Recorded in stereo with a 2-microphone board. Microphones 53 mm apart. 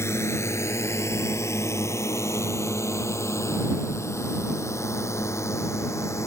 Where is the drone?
55° left (ahead or behind); by 6.3 s 60° left (ahead or behind).